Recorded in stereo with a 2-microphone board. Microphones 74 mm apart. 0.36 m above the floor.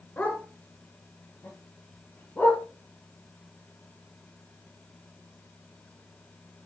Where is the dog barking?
20° left (ahead or behind), 2.0 m; by 2.6 s 25° left (ahead or behind), 3.5 m.